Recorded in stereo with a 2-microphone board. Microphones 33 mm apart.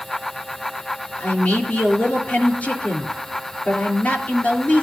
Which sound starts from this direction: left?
A man speaking, at 1.2 s.